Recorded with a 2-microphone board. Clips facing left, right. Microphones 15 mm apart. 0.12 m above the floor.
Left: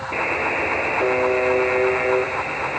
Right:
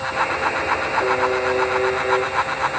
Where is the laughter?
I don't hear laughter.